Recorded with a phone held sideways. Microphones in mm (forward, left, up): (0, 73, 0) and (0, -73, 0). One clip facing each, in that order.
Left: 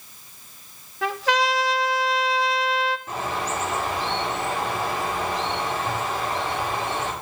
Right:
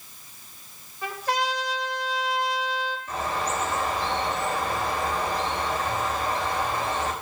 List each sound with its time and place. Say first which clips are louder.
1.0 s a trumpet: left 5 dB; 80° left, 0.9 m
3.1 s a bird: even; 70° left (ahead or behind), 3.5 m